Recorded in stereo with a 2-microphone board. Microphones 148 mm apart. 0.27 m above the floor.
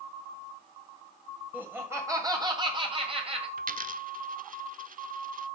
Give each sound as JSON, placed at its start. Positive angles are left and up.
{"t": 1.5, "sound": "laughter", "side_deg": -10, "distance_m": 1.6}
{"t": 3.6, "sound": "a dropped coin", "side_deg": -70, "distance_m": 0.5}